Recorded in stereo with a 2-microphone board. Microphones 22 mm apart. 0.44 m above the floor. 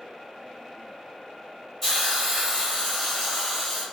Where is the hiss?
5° left (ahead or behind), 2.0 m.